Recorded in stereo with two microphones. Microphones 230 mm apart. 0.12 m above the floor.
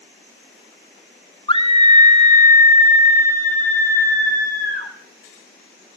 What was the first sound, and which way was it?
A scream, 20° left (ahead or behind).